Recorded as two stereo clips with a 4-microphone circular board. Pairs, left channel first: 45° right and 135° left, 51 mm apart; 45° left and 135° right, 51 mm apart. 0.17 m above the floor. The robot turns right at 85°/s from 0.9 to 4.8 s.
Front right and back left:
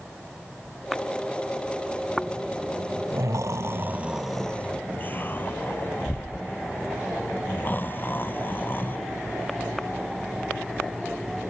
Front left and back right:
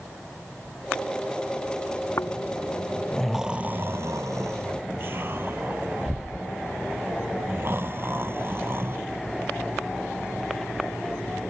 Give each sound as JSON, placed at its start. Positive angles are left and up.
{"t": 2.2, "sound": "snoring", "azimuth_deg": 40}